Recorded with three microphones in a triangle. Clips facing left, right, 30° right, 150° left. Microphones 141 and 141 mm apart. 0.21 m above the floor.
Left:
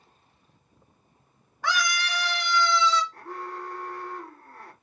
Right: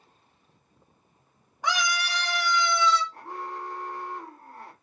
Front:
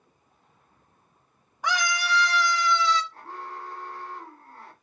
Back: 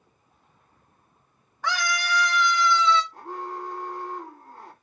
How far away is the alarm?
About 1.8 m.